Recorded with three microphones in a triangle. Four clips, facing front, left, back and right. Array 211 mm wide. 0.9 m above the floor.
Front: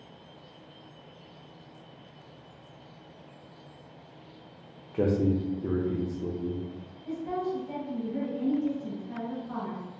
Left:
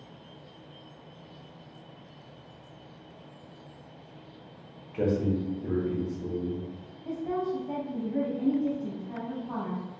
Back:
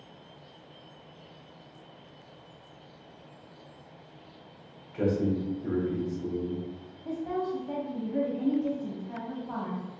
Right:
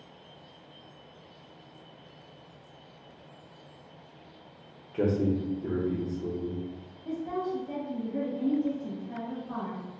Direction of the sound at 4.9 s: 10° right.